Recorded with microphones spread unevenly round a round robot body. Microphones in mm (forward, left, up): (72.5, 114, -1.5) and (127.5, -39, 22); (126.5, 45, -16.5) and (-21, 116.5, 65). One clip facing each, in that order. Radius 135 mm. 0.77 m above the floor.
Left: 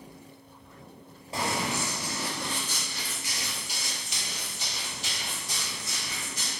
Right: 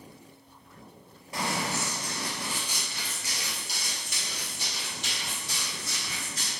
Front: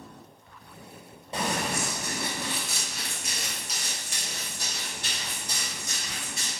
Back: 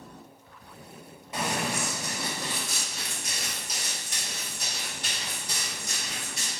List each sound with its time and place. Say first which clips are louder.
1.3 s running footsteps: left 1 dB, front 1 dB; 45° left, 1.0 m; by 6.5 s 95° right, 2 m